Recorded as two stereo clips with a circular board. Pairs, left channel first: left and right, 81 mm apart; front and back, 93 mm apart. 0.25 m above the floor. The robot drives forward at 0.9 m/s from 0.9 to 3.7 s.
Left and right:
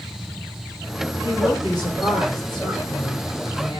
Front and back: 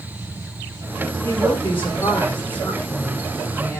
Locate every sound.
1.2 s a woman speaking: 60° left, 8 m; by 3.8 s 80° left, 7 m